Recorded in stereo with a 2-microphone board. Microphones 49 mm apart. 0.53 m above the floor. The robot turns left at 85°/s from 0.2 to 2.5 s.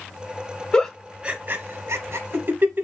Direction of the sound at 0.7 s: 20° left (ahead or behind).